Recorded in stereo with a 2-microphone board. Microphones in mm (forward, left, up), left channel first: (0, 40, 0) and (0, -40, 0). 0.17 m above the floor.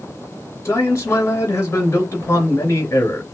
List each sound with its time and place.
0.7 s a man speaking: 35° left (ahead or behind), 3 m